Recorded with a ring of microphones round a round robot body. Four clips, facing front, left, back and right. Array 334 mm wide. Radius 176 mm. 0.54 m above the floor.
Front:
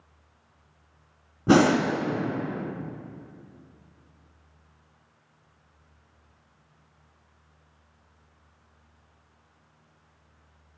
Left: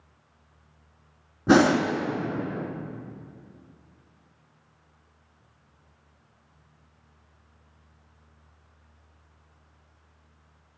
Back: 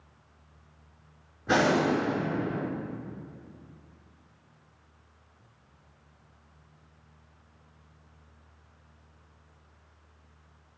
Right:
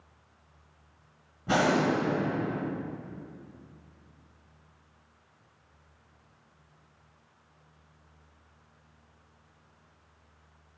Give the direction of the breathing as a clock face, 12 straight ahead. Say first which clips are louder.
Left 7 dB, front 5 dB; 11 o'clock.